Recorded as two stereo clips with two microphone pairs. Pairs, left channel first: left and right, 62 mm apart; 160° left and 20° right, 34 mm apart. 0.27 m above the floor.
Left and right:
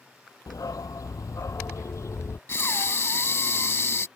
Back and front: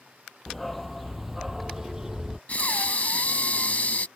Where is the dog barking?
75° left; by 2.4 s 50° left.